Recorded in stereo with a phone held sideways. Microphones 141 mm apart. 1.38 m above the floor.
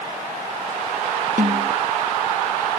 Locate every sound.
1.4 s a snare drum: 70° right (ahead or behind)